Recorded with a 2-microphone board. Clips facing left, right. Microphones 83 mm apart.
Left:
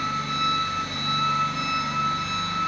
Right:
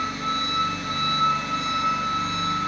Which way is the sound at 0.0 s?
60° right (ahead or behind).